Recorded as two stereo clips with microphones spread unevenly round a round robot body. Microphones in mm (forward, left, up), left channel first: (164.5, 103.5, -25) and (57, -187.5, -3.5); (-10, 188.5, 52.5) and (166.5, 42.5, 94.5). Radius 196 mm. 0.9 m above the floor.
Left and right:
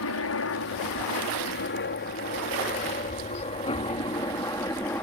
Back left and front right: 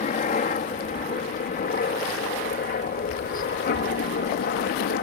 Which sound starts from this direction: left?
A helicopter, at 0.0 s.